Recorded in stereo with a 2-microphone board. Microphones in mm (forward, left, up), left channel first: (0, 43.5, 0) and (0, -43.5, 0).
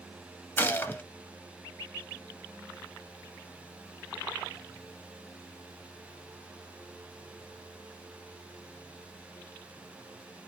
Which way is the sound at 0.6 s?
25° left (ahead or behind).